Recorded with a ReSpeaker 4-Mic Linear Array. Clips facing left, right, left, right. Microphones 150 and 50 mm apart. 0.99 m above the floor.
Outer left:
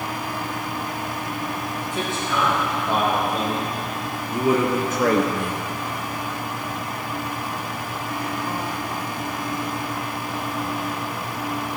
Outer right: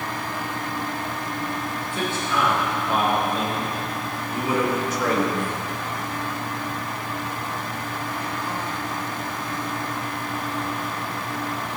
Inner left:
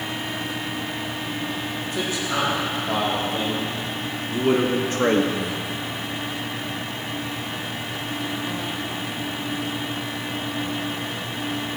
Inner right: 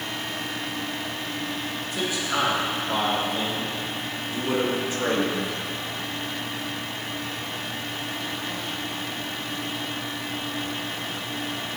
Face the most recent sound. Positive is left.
turn(degrees=70)  # may be behind; listen again after turning